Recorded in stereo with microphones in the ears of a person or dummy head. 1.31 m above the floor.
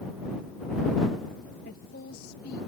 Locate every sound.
1.6 s a woman speaking: 60° left (ahead or behind)